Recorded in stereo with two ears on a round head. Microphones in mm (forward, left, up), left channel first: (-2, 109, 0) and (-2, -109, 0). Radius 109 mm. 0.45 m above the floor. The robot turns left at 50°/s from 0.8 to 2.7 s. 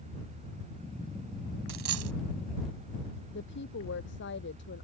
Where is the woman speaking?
50° left (ahead or behind).